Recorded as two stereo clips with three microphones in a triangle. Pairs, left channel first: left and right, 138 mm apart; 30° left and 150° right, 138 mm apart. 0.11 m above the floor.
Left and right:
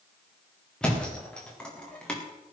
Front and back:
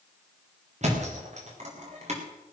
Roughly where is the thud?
Behind.